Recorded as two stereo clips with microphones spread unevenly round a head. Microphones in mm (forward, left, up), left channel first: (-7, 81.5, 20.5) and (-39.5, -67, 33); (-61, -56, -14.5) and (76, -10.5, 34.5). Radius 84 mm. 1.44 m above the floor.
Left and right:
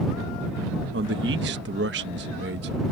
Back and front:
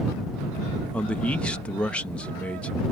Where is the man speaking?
75° right.